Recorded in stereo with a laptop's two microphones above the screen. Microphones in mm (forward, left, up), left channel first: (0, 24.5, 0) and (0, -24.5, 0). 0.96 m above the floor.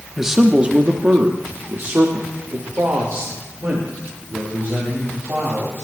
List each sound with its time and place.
0.2 s a man speaking: 5° right (ahead or behind), 0.9 m; by 5.8 s 50° right (ahead or behind), 3.5 m